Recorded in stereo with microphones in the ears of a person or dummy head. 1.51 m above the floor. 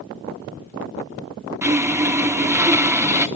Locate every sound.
1.6 s sawing: 10° right (ahead or behind), 0.7 m